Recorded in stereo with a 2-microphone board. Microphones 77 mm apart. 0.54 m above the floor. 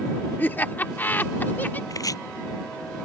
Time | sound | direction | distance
0.4 | laughter | 25° left (ahead or behind) | ?
1.9 | chopping | 55° left (ahead or behind) | ?